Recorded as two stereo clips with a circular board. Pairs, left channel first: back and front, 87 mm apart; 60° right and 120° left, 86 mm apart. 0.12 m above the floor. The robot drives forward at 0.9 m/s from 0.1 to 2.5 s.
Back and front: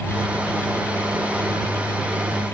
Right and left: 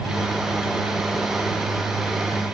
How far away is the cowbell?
No cowbell in this recording.